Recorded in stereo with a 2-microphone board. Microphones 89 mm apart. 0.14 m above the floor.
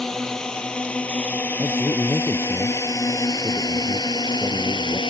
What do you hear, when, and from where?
0.0 s a drone: 5° left (ahead or behind); by 5.1 s 55° left (ahead or behind)
1.6 s a man speaking: 20° left (ahead or behind)